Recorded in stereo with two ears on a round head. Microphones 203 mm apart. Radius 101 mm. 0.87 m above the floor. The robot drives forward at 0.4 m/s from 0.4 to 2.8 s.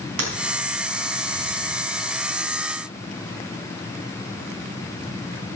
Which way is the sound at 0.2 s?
70° right (ahead or behind).